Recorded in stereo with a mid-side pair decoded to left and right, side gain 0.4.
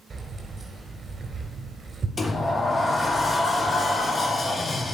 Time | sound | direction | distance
0.1 | keys jangling | 35° right | 4 m
2.2 | a sliding door | 30° left | 1.4 m